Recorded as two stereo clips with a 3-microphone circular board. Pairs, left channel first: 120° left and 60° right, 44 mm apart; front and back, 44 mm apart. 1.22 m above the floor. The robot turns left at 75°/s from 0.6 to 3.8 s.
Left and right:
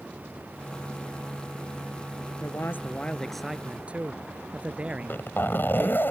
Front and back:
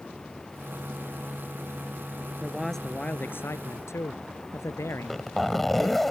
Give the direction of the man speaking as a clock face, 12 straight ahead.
8 o'clock.